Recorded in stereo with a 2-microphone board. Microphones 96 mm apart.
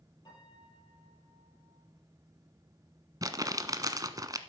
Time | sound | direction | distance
0.2 | a piano | 45° left (ahead or behind) | 7 m
3.2 | crumpling | 40° right (ahead or behind) | 0.9 m